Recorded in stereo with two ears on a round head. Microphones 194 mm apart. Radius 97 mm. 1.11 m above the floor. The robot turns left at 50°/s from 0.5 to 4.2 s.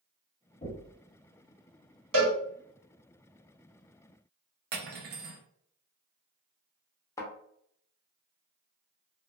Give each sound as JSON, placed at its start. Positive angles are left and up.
{"t": 0.6, "sound": "knocking", "side_deg": 30, "distance_m": 1.6}
{"t": 2.1, "sound": "a cowbell", "side_deg": -70, "distance_m": 1.3}
{"t": 4.7, "sound": "cutlery clinking", "side_deg": -45, "distance_m": 0.5}
{"t": 7.2, "sound": "a thud", "side_deg": 15, "distance_m": 0.8}